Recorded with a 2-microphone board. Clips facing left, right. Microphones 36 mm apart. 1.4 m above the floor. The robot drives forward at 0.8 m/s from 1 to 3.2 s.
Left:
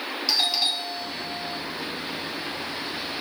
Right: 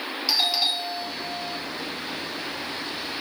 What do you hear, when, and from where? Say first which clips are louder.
0.3 s a doorbell: right 1 dB; 5° right (ahead or behind), 1.4 m